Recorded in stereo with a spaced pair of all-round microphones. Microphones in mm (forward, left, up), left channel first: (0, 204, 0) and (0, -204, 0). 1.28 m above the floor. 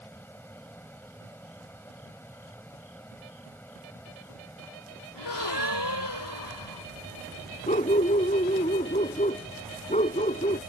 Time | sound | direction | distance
0.0 | a fan | 5° left (ahead or behind) | ?
5.2 | a gasp | 80° left | ?
7.7 | a dog barking | 20° left (ahead or behind) | ?